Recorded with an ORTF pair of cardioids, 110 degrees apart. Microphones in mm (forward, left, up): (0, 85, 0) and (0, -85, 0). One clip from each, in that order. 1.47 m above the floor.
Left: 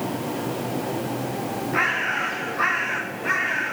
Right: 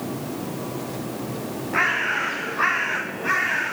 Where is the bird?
10° right, 0.8 m.